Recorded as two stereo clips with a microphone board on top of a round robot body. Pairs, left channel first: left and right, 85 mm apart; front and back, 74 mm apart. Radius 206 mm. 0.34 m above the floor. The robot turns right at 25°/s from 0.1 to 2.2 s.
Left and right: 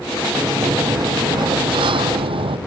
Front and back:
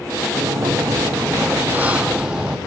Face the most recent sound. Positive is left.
turn(degrees=-100)